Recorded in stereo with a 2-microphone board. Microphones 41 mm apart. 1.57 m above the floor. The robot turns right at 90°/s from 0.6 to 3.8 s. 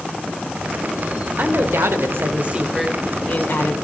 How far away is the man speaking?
About 1.1 m.